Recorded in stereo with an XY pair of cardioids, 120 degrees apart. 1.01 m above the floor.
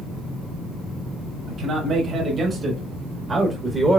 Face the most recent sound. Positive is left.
turn(degrees=-15)